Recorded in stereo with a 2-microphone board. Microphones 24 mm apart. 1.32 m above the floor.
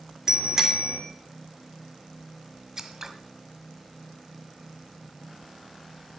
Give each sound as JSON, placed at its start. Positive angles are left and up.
{"t": 0.3, "sound": "a bicycle bell", "side_deg": -20, "distance_m": 2.5}
{"t": 2.8, "sound": "scissors", "side_deg": -20, "distance_m": 1.2}